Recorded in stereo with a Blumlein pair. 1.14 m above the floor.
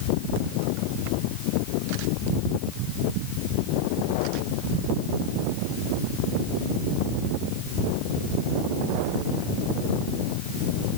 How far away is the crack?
No crack in this recording.